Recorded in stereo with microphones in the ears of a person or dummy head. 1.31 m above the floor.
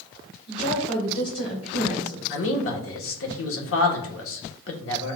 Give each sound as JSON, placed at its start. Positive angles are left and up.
{"t": 0.5, "sound": "a woman speaking", "side_deg": 40, "distance_m": 2.0}
{"t": 2.3, "sound": "a man speaking", "side_deg": 75, "distance_m": 1.1}